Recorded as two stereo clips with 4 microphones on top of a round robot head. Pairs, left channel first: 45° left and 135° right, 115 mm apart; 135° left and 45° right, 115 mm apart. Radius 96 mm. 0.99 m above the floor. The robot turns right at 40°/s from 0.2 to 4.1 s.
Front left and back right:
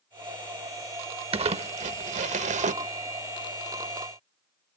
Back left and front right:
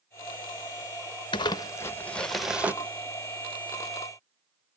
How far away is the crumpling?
About 0.8 m.